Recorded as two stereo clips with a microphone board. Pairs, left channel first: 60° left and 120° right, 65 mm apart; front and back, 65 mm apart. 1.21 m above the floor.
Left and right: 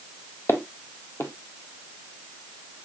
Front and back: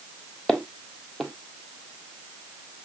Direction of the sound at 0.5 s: 85° left.